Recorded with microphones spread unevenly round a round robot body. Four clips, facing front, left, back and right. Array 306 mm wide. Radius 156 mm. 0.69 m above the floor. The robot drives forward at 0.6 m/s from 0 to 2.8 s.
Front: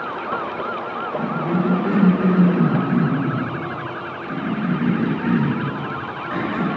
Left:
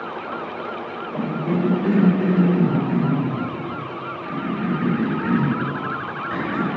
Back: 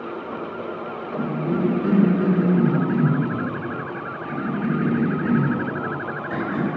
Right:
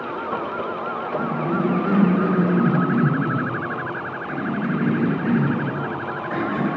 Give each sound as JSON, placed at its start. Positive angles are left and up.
{"t": 1.1, "sound": "a cough", "azimuth_deg": 120, "distance_m": 1.0}